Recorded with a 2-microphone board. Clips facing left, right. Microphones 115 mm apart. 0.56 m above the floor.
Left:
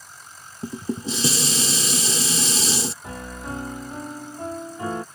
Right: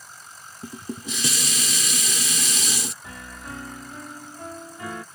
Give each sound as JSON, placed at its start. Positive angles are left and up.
{"t": 0.6, "sound": "dishes clattering", "side_deg": 30}
{"t": 3.0, "sound": "a piano", "side_deg": 35}